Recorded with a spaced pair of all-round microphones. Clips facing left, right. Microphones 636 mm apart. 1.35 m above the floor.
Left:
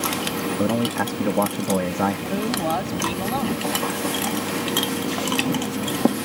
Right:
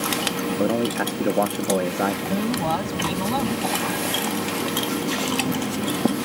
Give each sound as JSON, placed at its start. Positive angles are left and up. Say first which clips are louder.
{"t": 0.6, "sound": "a man speaking", "louder": "even", "side_deg": 30}
{"t": 2.3, "sound": "a man speaking", "louder": "even", "side_deg": -30}